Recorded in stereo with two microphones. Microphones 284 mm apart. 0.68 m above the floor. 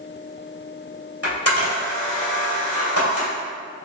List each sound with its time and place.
1.2 s a camera shutter: 55° left (ahead or behind), 1.9 m